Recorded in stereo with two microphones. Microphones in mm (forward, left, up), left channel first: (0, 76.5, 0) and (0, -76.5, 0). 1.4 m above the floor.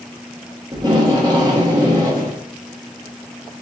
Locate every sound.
0.7 s tape being pulled: 25° right (ahead or behind), 1.1 m